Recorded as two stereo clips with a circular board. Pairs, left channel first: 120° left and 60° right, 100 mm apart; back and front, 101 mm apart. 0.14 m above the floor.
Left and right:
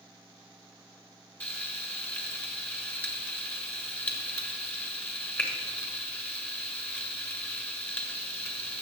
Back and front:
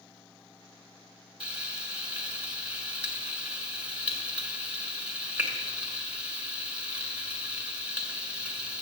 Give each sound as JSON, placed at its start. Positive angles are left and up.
{"t": 1.4, "sound": "frying", "azimuth_deg": 65, "distance_m": 1.6}